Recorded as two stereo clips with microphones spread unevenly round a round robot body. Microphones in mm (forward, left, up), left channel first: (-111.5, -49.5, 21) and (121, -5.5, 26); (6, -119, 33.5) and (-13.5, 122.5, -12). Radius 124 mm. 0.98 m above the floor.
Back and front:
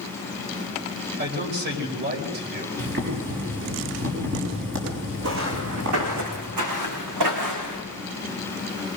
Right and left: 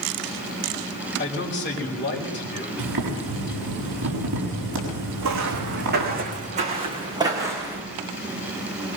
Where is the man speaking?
35° right, 5 m.